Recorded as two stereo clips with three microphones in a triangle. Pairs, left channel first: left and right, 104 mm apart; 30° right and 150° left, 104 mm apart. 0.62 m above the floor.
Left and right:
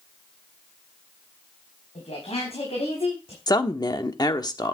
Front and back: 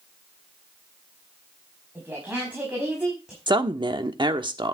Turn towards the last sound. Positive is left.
turn(degrees=125)